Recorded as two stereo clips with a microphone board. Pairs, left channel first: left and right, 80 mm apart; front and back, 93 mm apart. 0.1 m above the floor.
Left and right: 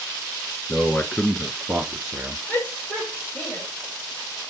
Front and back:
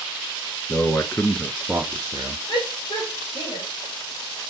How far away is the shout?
About 3.5 m.